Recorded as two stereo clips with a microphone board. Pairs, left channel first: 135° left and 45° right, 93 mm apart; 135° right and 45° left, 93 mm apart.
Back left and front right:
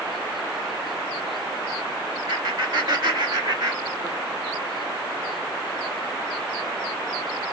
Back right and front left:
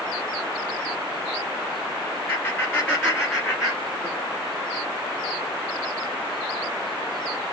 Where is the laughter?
60° right, 2.5 m; by 4.2 s 20° right, 1.7 m.